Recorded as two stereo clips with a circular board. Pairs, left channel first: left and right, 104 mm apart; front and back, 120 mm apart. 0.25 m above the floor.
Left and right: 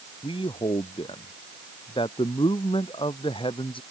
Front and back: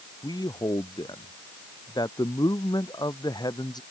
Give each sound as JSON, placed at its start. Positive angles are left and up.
{"t": 0.2, "sound": "a man speaking", "azimuth_deg": 55}